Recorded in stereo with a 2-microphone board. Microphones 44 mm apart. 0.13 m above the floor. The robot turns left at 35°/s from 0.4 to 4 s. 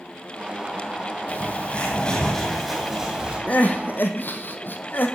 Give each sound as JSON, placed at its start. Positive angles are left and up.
{"t": 1.3, "sound": "a bird", "azimuth_deg": 55, "distance_m": 3.0}
{"t": 3.5, "sound": "crying", "side_deg": 40, "distance_m": 1.2}